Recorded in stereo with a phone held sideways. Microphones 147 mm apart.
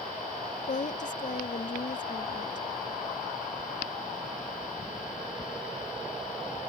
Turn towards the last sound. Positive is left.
turn(degrees=55)  # may be behind; listen again after turning